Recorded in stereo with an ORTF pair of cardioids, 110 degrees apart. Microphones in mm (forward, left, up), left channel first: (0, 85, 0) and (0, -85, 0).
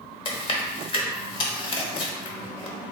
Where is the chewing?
30° left, 0.9 m.